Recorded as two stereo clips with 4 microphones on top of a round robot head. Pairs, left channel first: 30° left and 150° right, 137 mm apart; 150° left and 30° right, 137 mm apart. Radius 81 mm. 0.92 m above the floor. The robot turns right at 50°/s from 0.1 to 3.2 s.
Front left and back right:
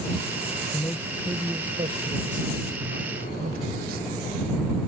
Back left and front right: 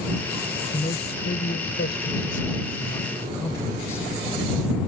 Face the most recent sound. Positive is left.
turn(degrees=-140)